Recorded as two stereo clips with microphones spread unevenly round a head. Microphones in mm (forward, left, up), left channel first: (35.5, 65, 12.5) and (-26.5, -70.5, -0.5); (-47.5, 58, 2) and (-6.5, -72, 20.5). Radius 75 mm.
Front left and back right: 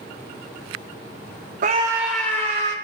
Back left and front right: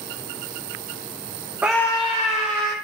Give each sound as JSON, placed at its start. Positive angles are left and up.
{"t": 1.6, "sound": "a scream", "azimuth_deg": -155, "distance_m": 0.6}